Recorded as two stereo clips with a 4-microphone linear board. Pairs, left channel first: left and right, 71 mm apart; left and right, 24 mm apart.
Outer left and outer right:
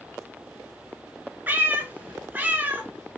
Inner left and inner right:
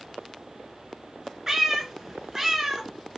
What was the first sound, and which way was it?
A cat meowing, 25° right (ahead or behind).